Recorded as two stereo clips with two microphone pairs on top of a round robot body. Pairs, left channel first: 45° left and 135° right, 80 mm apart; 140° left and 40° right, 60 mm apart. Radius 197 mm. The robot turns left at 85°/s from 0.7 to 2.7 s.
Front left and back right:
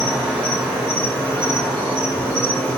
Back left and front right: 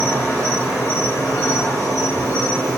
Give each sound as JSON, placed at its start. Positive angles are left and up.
{"t": 0.0, "sound": "an insect", "azimuth_deg": -145, "distance_m": 1.1}